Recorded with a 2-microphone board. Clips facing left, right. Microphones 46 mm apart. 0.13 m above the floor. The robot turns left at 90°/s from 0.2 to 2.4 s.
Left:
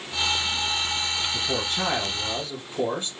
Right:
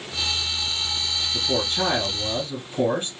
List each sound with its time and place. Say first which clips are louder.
1.3 s a man speaking: right 2 dB; 15° left (ahead or behind), 1.9 m; by 3.1 s 25° right (ahead or behind), 1.9 m